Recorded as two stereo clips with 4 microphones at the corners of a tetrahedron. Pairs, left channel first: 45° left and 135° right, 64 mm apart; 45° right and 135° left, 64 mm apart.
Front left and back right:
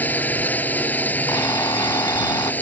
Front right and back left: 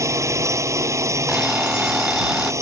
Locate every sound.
0.0 s a drone: 105° left
1.3 s an alarm clock: 60° left